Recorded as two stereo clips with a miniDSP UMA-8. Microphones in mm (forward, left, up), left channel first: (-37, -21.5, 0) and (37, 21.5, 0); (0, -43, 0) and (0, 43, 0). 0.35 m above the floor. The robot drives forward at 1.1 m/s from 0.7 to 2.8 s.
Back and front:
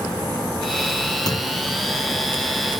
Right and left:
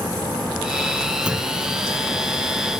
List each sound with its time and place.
1.3 s a clunk: 170° left